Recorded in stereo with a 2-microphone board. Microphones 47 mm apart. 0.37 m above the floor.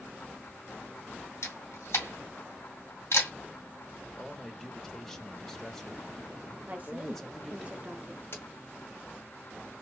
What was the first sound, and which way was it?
A camera shutter, 65° left (ahead or behind).